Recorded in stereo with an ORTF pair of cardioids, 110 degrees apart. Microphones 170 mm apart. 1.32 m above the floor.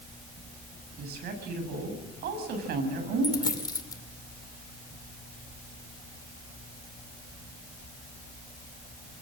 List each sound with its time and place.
1.0 s a woman speaking: 70° right, 7.5 m
3.2 s a dropped coin: 25° left, 2 m